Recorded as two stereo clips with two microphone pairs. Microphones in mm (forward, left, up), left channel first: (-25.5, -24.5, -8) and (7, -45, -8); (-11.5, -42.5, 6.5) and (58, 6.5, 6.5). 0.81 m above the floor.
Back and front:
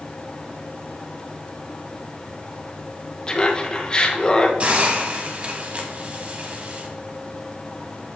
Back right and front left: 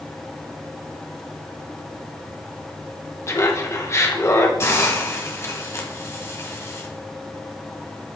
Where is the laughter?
170° right, 1.1 m.